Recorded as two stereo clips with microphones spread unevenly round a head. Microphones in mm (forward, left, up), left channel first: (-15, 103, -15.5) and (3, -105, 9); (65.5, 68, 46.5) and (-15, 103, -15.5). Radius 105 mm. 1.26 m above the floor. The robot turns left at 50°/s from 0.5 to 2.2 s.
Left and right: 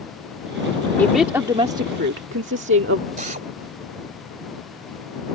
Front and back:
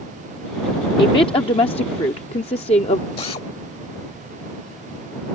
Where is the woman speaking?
10° left; by 3.1 s 50° right.